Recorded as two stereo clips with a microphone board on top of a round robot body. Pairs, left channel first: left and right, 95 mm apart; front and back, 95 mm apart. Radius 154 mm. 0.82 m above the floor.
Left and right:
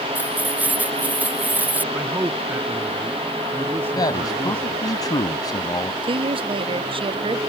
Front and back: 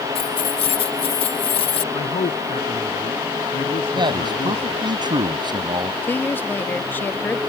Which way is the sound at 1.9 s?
20° right.